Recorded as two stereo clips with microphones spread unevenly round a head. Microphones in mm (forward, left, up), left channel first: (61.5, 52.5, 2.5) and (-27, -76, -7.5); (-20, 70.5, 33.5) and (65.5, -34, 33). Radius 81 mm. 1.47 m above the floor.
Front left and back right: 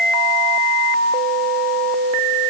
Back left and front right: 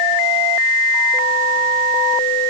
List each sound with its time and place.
Only background noise.